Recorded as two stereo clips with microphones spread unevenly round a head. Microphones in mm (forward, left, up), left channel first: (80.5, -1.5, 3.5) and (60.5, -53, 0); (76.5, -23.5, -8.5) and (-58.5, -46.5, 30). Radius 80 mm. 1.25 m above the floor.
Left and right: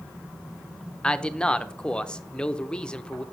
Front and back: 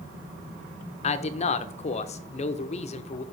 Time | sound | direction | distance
1.0 | a man speaking | 5° right | 0.7 m